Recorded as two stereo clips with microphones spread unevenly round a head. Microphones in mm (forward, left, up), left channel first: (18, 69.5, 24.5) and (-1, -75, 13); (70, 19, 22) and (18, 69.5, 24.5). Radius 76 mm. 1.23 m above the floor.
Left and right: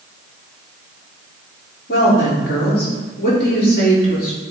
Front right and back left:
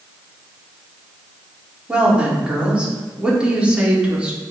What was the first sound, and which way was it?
A woman speaking, 60° left.